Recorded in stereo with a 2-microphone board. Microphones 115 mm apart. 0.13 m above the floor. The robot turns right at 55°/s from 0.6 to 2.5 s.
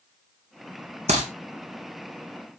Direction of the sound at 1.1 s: 75° right (ahead or behind).